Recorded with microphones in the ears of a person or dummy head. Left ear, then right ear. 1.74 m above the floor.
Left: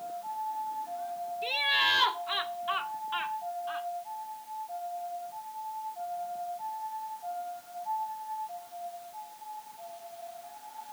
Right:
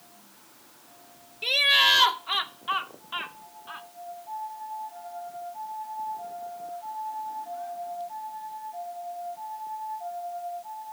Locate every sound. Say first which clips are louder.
1.4 s laughter: right 7 dB; 25° right (ahead or behind); by 3.9 s centre (ahead or behind)